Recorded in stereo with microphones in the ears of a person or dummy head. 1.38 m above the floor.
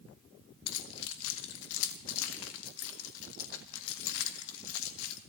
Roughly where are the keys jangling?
Left.